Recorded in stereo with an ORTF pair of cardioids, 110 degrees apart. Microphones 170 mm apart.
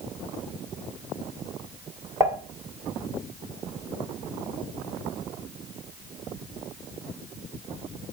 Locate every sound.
2.2 s dishes clattering: 15° right, 2.5 m